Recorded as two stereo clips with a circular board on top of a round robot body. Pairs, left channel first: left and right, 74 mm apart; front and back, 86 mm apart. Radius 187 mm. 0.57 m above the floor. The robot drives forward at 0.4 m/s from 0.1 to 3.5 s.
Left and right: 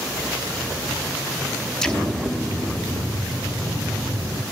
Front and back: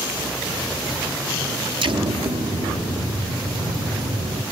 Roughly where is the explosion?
Behind.